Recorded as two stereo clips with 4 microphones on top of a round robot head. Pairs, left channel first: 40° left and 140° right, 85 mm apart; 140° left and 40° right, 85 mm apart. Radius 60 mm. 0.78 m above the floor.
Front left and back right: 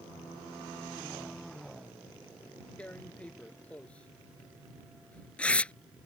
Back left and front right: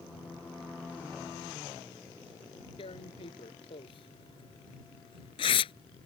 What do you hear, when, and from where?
2.8 s tearing paper: 115° left